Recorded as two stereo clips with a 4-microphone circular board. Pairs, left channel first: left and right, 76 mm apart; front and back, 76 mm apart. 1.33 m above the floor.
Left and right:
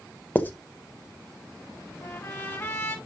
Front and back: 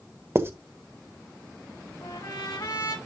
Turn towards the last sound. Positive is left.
turn(degrees=25)